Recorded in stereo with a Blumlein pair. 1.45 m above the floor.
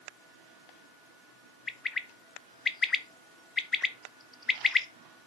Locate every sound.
1.7 s a bird: 20° left, 0.6 m